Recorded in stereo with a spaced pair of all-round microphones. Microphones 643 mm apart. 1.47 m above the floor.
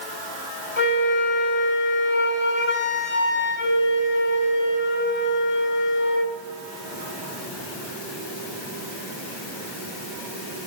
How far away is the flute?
About 2.5 m.